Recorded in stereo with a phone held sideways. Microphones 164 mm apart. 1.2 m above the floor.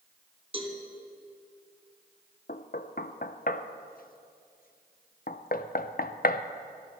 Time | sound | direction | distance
0.5 | a cowbell | 35° right (ahead or behind) | 1.9 m
2.5 | knocking | 60° left (ahead or behind) | 0.6 m